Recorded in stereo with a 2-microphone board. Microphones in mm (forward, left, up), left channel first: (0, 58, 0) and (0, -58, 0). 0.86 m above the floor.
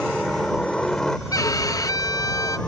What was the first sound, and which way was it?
A helicopter, 5° left (ahead or behind).